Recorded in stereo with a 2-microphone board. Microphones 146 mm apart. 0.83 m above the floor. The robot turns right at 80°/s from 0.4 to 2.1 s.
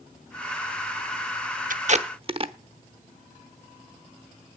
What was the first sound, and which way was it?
Tape being pulled, 65° right (ahead or behind).